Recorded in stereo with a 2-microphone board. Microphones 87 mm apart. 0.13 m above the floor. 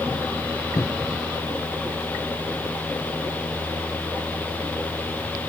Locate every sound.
0.8 s a cupboard door: 45° left (ahead or behind)